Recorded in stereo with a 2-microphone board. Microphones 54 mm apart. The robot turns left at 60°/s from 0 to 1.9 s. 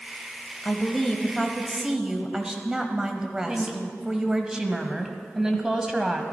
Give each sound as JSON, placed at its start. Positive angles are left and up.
{"t": 0.6, "sound": "a woman speaking", "side_deg": 15, "distance_m": 1.0}
{"t": 3.5, "sound": "a woman speaking", "side_deg": -15, "distance_m": 1.2}